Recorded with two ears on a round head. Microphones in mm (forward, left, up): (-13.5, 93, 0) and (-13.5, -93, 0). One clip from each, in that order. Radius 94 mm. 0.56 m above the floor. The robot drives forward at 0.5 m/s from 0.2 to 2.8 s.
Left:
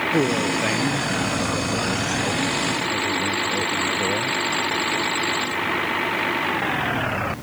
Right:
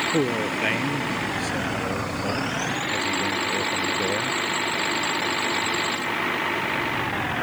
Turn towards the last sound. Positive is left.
turn(degrees=-25)  # may be behind; listen again after turning